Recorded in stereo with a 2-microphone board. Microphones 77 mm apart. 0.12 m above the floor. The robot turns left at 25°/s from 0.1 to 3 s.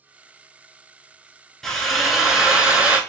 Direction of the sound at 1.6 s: 10° left.